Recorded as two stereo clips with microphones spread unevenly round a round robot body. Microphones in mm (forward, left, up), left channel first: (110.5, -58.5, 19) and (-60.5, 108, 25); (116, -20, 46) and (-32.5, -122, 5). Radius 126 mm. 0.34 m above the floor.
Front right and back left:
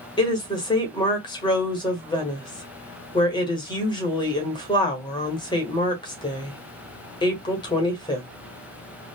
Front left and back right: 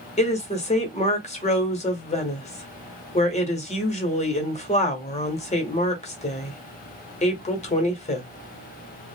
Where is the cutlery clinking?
No cutlery clinking in this recording.